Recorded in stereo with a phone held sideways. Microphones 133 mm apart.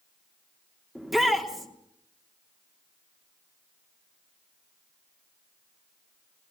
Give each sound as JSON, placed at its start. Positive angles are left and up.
{"t": 0.9, "sound": "a shout", "side_deg": 0, "distance_m": 3.0}